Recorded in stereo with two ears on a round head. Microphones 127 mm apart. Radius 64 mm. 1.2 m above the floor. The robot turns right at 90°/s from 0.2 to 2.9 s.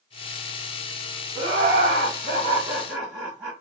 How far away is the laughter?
About 1.5 m.